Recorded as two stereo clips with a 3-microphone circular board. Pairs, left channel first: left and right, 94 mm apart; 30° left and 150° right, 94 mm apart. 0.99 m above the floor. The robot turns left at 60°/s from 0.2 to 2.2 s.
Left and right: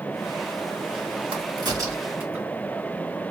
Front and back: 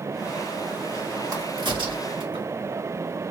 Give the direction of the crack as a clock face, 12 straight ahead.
4 o'clock.